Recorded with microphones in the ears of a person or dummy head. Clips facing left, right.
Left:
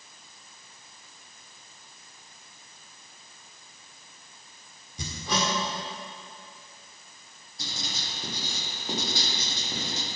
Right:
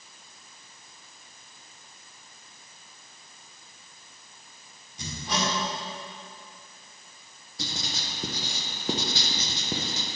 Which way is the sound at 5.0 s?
70° left (ahead or behind).